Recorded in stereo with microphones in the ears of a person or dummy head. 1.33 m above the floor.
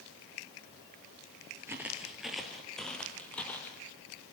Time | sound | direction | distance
1.7 | footsteps | 5° right (ahead or behind) | 1.5 m